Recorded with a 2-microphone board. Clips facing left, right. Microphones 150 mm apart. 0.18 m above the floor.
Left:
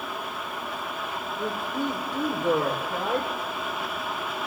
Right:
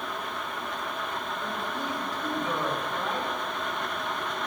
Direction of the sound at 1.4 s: 60° left (ahead or behind).